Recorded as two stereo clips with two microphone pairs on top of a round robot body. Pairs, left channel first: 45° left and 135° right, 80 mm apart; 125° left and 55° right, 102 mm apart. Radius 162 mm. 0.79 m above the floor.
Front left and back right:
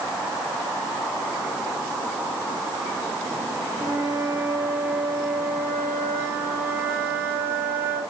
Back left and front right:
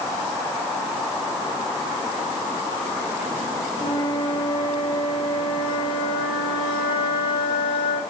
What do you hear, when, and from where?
3.8 s a flute: 165° left, 4 m